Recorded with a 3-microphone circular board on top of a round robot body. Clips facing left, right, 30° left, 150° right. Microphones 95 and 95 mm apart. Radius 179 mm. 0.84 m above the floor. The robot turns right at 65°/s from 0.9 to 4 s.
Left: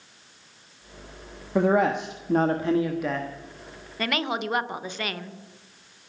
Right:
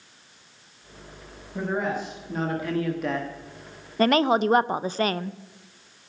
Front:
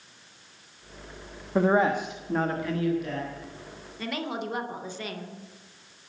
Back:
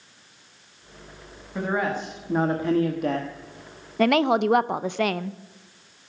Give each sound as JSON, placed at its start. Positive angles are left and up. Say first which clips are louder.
{"t": 1.6, "sound": "a man speaking", "louder": "left 7 dB, front 4 dB", "azimuth_deg": 80, "distance_m": 1.4}
{"t": 4.0, "sound": "a woman speaking", "louder": "right 8 dB, back 13 dB", "azimuth_deg": -145, "distance_m": 0.7}